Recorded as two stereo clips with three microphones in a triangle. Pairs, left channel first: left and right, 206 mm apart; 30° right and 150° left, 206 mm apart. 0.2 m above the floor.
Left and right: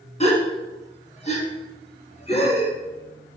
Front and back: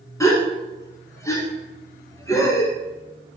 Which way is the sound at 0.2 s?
40° left.